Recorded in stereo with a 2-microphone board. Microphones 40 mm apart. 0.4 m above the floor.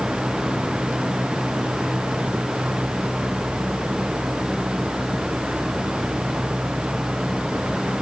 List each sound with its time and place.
Only background noise.